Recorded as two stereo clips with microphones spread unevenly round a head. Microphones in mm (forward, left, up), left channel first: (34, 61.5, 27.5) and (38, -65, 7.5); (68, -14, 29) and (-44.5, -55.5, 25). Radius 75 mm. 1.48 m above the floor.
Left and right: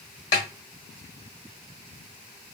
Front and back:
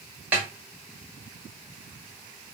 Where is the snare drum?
120° left, 1.5 m.